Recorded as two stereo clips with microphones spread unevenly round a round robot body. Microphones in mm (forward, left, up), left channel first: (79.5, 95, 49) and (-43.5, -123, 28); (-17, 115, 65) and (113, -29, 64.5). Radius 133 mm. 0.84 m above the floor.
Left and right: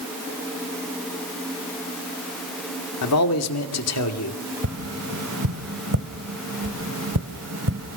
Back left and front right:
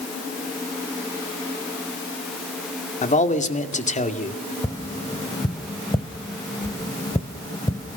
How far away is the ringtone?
No ringtone in this recording.